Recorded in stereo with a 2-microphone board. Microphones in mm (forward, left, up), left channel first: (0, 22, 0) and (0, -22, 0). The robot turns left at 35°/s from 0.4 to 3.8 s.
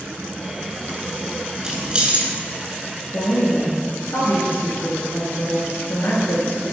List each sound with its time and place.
1.6 s keys jangling: 15° right (ahead or behind), 1.3 m; by 2.3 s 30° right (ahead or behind), 1.3 m
3.1 s a woman speaking: 55° left (ahead or behind), 2.0 m